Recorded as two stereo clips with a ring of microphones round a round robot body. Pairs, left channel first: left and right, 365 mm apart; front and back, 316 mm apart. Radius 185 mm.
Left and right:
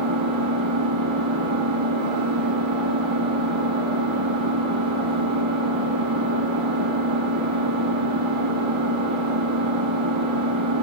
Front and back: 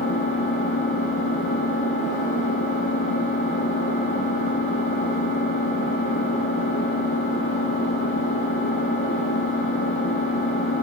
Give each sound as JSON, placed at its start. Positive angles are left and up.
{"t": 0.0, "sound": "an engine running", "azimuth_deg": -65, "distance_m": 9.0}